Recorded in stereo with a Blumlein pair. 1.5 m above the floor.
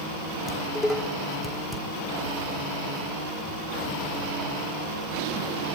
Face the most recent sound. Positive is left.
turn(degrees=10)